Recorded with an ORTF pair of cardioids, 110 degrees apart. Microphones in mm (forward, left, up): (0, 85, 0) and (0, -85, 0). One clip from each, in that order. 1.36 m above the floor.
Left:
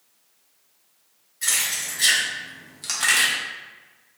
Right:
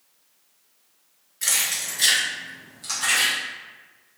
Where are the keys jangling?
30° right, 1.4 m; by 3.3 s 60° left, 1.0 m.